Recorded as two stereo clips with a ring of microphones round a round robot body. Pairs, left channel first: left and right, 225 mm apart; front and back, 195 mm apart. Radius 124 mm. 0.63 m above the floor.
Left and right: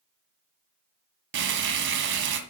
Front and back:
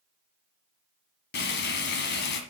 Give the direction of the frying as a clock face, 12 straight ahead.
2 o'clock.